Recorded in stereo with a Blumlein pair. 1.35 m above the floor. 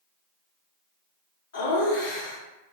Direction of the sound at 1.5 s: 55° left.